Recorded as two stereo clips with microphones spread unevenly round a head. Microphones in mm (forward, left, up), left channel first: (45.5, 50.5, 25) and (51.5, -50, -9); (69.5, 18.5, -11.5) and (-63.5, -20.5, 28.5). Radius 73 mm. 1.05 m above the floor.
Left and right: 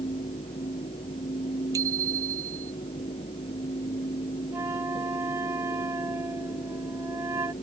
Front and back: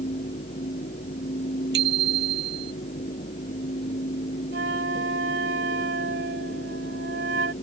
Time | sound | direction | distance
0.0 | a fan | 65° left | ?
1.7 | a bicycle bell | 155° right | ?
4.5 | a flute | 165° right | ?